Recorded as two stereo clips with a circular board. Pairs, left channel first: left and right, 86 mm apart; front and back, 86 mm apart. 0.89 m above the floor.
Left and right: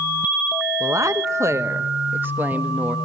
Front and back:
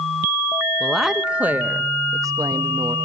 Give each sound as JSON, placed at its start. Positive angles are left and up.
{"t": 0.8, "sound": "a woman speaking", "azimuth_deg": -85, "distance_m": 1.0}